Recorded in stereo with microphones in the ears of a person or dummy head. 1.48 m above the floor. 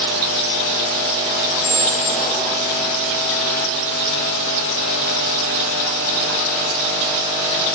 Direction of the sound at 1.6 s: 15° left (ahead or behind).